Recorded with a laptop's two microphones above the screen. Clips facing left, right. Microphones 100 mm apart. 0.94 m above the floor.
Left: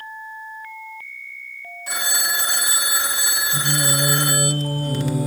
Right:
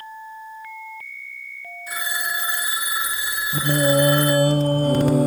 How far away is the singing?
About 1.1 m.